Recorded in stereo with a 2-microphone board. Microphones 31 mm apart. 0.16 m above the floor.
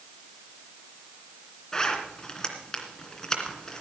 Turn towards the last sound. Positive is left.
turn(degrees=20)  # may be behind; listen again after turning